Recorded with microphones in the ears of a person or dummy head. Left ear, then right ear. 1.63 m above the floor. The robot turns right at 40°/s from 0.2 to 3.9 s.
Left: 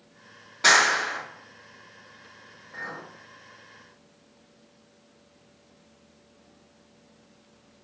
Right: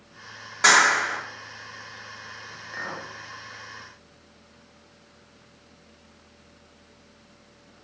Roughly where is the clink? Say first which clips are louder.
Right 2 dB; right.